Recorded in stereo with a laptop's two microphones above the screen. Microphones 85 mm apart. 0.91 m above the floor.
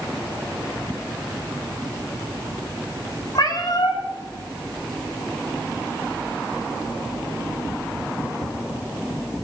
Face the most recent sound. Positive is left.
turn(degrees=50)  # may be behind; listen again after turning